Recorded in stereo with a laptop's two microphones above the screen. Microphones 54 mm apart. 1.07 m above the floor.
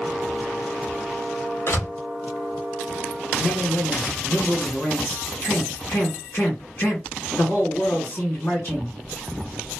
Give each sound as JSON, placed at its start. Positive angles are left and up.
{"t": 1.7, "sound": "a door slam", "side_deg": 45, "distance_m": 1.3}
{"t": 3.4, "sound": "a man speaking", "side_deg": 45, "distance_m": 1.6}